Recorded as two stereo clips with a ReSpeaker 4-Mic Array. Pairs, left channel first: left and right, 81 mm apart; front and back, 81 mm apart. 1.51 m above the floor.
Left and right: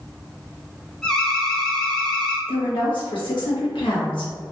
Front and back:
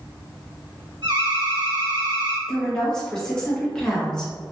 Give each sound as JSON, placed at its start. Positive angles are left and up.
{"t": 1.0, "sound": "an alarm", "azimuth_deg": 170, "distance_m": 1.7}
{"t": 2.5, "sound": "a woman speaking", "azimuth_deg": 80, "distance_m": 1.9}